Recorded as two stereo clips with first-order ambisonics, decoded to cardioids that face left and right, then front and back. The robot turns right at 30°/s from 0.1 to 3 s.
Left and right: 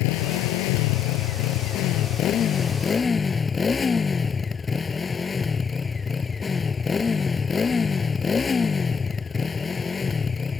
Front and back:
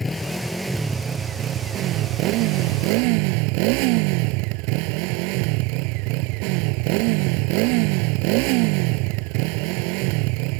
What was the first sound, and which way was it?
A motorcycle, 80° left.